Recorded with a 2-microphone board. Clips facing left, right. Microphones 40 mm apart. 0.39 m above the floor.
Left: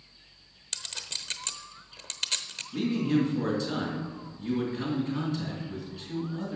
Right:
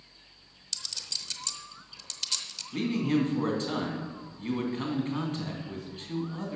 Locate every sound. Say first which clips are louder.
0.7 s a clink: left 1 dB; 40° left (ahead or behind), 0.8 m
2.7 s a man speaking: left 1 dB; 40° right (ahead or behind), 3 m